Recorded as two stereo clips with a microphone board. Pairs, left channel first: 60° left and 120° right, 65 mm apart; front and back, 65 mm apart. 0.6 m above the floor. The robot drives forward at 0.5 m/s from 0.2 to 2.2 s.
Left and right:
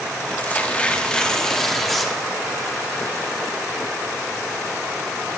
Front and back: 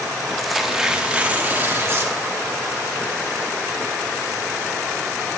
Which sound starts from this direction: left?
Tearing paper, at 0.4 s.